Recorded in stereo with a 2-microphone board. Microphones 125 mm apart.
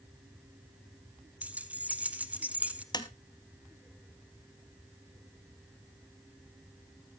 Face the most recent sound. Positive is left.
turn(degrees=35)  # may be behind; listen again after turning